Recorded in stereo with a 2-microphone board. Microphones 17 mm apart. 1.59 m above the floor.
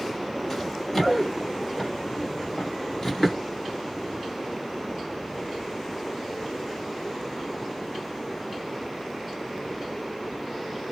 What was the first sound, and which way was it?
Running footsteps, 5° left (ahead or behind).